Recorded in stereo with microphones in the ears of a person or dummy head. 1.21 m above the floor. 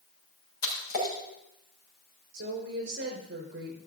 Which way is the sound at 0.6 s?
50° left (ahead or behind).